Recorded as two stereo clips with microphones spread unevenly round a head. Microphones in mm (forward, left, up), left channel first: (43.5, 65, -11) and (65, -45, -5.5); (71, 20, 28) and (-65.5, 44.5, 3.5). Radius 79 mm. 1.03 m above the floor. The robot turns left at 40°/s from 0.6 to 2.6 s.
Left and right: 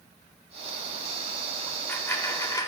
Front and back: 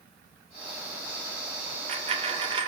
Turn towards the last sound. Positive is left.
turn(degrees=135)